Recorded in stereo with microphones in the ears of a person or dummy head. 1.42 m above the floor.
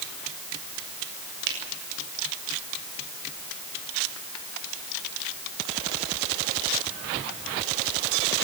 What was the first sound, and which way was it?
A finger snap, 65° right (ahead or behind).